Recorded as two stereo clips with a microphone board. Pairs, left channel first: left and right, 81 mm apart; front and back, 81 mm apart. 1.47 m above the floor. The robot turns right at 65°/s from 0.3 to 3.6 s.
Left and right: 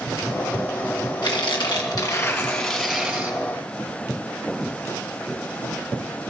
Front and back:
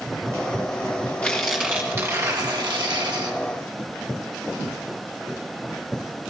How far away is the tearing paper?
About 1.4 m.